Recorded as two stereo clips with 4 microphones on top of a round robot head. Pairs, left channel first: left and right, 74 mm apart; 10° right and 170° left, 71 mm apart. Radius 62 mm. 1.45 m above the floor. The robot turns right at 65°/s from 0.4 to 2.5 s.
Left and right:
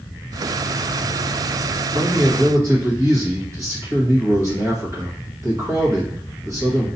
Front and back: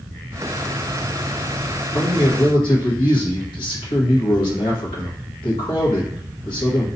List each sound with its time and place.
1.9 s a man speaking: 65° right, 1.4 m; by 6.9 s 30° right, 1.4 m